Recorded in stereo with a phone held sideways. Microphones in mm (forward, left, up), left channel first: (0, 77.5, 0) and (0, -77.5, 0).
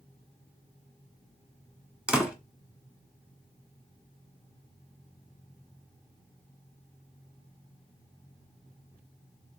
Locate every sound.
2.1 s a door slam: 5° right (ahead or behind), 1.7 m